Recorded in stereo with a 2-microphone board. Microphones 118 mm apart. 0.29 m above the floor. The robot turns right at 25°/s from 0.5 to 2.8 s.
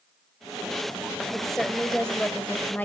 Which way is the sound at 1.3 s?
Centre (ahead or behind).